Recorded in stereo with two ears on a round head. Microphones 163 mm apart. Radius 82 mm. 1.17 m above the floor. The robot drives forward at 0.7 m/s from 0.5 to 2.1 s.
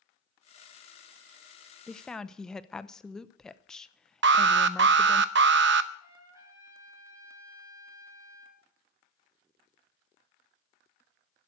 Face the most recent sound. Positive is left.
turn(degrees=-15)  # may be behind; listen again after turning